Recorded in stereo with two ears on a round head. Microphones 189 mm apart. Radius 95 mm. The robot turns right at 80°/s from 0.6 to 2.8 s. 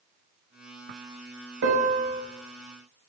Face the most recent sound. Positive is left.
turn(degrees=25)